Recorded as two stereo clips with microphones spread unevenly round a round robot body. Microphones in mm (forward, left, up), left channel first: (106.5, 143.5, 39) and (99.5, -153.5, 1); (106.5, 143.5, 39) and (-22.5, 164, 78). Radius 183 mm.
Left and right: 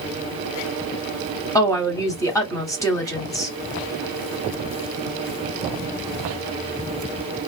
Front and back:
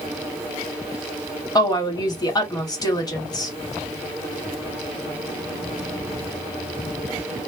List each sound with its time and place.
1.6 s a woman speaking: 5° left, 1.6 m